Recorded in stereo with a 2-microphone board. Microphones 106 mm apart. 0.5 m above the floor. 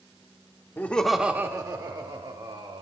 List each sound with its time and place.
0.8 s laughter: 20° left (ahead or behind), 0.8 m; by 2.8 s 65° right (ahead or behind), 1.9 m